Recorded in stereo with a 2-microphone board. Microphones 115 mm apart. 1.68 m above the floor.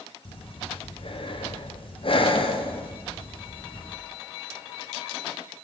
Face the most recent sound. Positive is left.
turn(degrees=50)  # may be behind; listen again after turning